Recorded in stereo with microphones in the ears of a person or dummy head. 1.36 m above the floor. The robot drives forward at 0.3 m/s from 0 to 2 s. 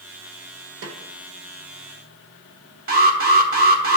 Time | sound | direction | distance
0.8 | a snare drum | 75° right (ahead or behind) | 1.2 m
2.9 | an alarm | 50° right (ahead or behind) | 1.2 m